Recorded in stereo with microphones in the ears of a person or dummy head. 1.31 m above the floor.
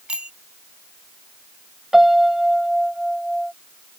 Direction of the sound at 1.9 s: Centre (ahead or behind).